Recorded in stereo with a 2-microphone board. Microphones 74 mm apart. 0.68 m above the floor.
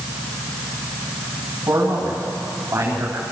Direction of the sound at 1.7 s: 45° right (ahead or behind).